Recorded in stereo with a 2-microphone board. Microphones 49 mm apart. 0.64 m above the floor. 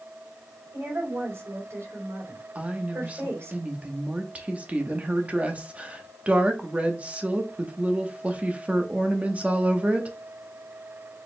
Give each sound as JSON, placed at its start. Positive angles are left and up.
{"t": 0.7, "sound": "a woman speaking", "side_deg": -70, "distance_m": 3.0}
{"t": 2.5, "sound": "a woman speaking", "side_deg": -30, "distance_m": 0.9}